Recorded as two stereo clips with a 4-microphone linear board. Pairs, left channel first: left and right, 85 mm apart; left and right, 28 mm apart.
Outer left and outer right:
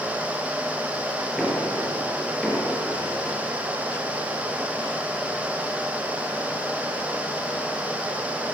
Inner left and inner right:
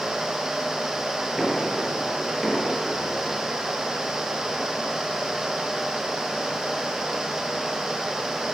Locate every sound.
1.4 s knocking: centre (ahead or behind), 5 m